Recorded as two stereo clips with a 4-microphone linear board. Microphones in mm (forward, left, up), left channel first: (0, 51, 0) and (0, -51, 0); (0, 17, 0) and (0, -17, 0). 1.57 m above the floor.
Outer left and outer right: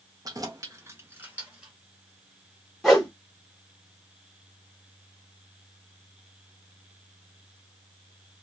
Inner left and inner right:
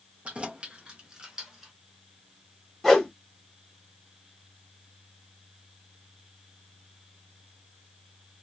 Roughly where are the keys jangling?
Right.